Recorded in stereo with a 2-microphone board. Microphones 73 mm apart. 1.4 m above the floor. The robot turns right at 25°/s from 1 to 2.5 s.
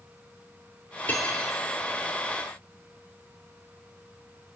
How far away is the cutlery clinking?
About 2.5 m.